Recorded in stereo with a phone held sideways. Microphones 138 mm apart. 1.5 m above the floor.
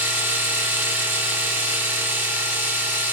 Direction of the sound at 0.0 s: 15° right (ahead or behind).